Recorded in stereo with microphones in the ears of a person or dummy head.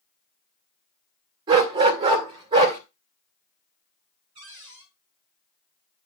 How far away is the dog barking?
About 2 m.